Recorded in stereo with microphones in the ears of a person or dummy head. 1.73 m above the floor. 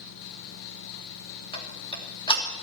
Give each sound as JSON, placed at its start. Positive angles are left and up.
{"t": 1.5, "sound": "ticking", "side_deg": 25, "distance_m": 3.0}